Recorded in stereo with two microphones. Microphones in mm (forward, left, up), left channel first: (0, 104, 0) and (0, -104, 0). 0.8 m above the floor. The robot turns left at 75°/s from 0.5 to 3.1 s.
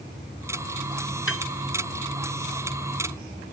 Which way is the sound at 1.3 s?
75° left (ahead or behind).